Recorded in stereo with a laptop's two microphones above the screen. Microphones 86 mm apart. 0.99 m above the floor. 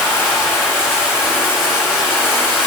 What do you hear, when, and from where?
0.0 s running water: 25° left (ahead or behind), 4.5 m